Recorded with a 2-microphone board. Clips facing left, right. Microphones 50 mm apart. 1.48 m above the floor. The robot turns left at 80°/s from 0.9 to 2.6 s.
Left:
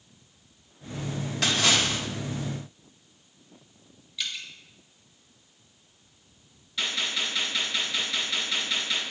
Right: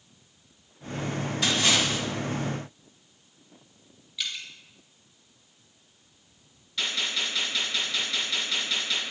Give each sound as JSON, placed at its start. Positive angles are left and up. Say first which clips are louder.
{"t": 1.4, "sound": "a splash", "louder": "left 1 dB", "azimuth_deg": 95, "distance_m": 1.9}
{"t": 4.2, "sound": "dripping", "louder": "even", "side_deg": -5, "distance_m": 1.4}
{"t": 6.8, "sound": "a gunshot", "louder": "even", "side_deg": 0, "distance_m": 3.0}